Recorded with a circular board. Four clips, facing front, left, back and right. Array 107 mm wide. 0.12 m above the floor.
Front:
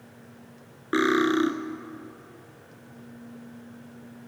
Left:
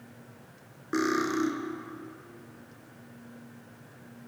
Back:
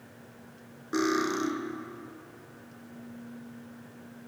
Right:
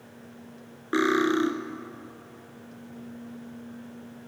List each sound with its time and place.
0.9 s cutlery clinking: 25° right, 0.8 m